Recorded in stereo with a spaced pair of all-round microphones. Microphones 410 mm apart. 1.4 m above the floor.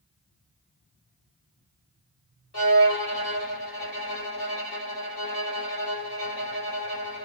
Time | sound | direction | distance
2.5 | a violin | 65° left (ahead or behind) | 3 m